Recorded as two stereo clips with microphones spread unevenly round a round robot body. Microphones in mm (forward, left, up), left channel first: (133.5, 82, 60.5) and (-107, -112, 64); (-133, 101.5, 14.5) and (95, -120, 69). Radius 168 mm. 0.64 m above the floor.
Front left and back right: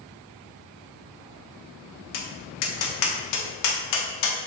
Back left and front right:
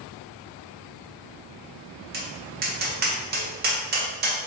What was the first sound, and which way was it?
Tapping, 20° left.